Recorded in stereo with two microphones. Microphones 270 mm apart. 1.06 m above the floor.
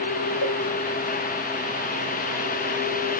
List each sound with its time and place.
0.4 s a cowbell: 60° left (ahead or behind), 1.2 m